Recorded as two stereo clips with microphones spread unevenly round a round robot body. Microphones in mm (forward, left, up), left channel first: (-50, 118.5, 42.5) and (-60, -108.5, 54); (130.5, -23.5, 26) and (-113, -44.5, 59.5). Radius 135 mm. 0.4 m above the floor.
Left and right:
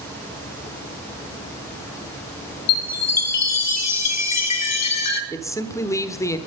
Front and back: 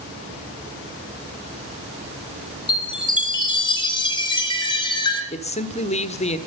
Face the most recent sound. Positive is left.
turn(degrees=25)